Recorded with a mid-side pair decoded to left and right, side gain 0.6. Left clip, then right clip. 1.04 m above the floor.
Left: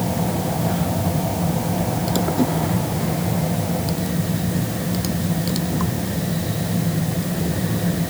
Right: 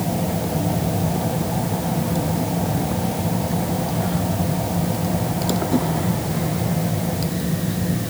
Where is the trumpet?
No trumpet in this recording.